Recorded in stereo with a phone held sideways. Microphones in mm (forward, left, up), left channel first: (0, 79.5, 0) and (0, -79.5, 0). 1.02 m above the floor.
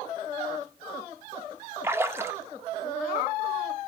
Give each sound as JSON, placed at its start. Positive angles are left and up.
{"t": 1.8, "sound": "a splash", "side_deg": -15, "distance_m": 0.6}